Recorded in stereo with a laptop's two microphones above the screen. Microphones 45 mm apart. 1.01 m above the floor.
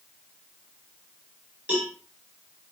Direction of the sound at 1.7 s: 35° right (ahead or behind).